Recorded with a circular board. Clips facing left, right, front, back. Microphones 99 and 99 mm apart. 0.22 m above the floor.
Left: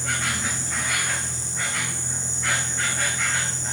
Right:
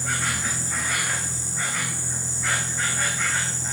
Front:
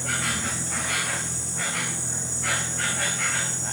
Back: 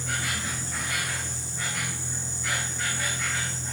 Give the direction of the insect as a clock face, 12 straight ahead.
12 o'clock.